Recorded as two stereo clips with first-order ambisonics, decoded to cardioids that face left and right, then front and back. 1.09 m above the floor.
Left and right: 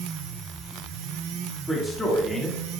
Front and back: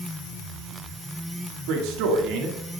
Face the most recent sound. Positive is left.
turn(degrees=170)